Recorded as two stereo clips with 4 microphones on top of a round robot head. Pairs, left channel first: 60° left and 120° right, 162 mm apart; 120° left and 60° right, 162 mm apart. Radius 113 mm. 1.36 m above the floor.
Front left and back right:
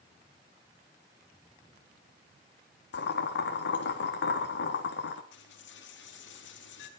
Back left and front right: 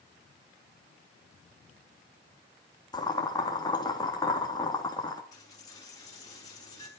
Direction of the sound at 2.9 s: 55° left.